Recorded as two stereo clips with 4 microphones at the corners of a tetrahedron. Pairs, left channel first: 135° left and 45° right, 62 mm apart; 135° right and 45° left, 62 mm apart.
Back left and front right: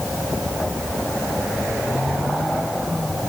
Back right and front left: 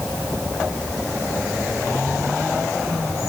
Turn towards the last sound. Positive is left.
No sound to turn to.